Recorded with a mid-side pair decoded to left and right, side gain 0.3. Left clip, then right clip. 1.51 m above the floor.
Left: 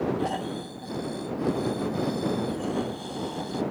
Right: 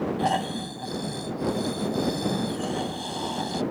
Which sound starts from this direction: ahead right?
Snoring, at 0.2 s.